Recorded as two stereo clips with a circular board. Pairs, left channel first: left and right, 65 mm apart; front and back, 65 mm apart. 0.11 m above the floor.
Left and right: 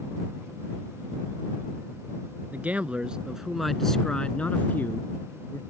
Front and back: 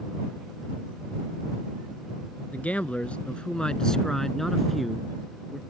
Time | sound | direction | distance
2.5 | a man speaking | 50° right | ?